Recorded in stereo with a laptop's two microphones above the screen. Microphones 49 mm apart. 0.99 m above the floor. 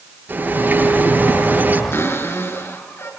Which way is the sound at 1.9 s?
60° left (ahead or behind).